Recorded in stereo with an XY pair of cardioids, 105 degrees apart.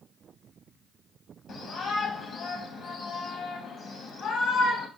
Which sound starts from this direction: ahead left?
A shout, at 1.5 s.